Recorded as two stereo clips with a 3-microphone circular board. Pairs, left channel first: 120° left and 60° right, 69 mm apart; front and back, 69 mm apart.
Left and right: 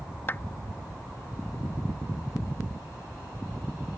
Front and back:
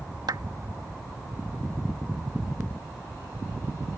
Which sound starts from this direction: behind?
A clap, at 0.3 s.